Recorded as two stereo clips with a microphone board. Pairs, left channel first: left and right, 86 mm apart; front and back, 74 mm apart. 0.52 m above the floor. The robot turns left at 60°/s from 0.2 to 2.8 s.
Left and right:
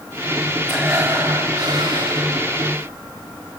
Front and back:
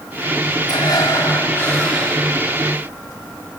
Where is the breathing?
Straight ahead, 3.5 m; by 2.3 s 100° right, 3.5 m.